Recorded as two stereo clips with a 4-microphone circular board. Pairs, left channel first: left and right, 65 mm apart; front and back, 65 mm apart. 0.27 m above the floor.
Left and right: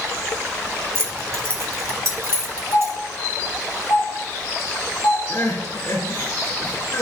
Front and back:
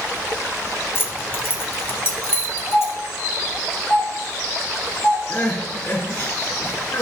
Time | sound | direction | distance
0.9 | keys jangling | 45° right | 1.6 m
2.7 | a doorbell | 65° left | 4.5 m
5.3 | crying | 55° left | 3 m